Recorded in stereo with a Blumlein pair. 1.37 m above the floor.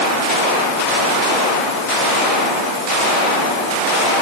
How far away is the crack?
I don't hear a crack.